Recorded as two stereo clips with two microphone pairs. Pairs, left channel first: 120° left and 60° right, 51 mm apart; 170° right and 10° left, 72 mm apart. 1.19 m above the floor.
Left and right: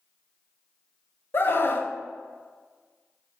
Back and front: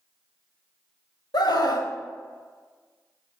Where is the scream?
170° left, 0.8 m.